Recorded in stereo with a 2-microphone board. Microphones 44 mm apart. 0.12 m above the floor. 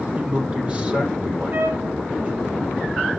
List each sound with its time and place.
0.2 s a man speaking: 30° right (ahead or behind), 4 m
1.5 s a trumpet: 60° right (ahead or behind), 1.5 m